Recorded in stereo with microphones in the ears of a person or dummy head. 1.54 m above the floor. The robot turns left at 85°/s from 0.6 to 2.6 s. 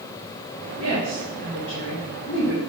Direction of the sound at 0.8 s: 40° right (ahead or behind).